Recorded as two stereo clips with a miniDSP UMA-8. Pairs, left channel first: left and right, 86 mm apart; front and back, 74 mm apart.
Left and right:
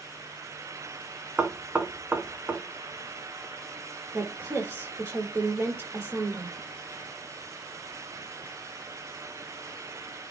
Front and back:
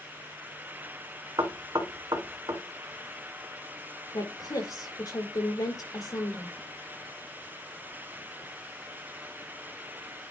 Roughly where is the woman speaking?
Ahead right.